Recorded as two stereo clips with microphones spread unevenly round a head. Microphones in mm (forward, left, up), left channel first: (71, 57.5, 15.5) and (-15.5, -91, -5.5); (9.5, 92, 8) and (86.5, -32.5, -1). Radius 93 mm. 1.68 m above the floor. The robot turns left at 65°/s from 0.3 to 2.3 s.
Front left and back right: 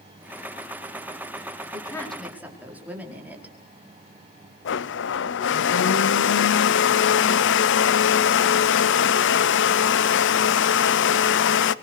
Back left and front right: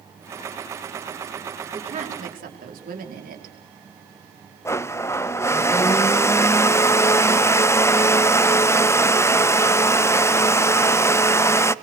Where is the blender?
50° left, 0.7 m.